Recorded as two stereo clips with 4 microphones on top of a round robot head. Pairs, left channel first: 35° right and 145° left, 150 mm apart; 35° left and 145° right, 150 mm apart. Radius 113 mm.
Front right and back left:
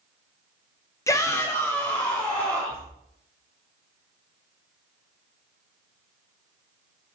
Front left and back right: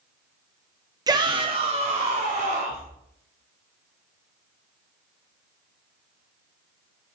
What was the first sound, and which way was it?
A shout, 95° right.